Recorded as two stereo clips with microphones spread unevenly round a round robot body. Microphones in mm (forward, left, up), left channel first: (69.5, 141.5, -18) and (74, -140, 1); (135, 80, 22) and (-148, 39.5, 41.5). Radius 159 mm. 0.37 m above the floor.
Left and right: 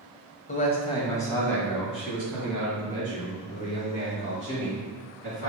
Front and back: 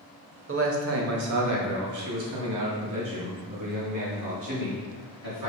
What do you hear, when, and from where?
0.5 s a man speaking: 150° left, 1.3 m; by 5.5 s 155° right, 4 m